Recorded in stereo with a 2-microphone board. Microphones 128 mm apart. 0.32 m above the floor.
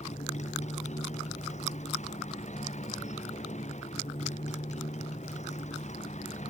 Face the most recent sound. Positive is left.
turn(degrees=65)  # may be behind; listen again after turning